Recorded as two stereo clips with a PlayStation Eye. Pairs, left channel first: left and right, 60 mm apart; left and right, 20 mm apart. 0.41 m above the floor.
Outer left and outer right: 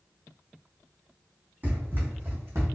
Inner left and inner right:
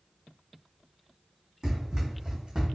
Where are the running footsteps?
30° right (ahead or behind), 1.6 m; by 2.7 s 50° right (ahead or behind), 1.4 m.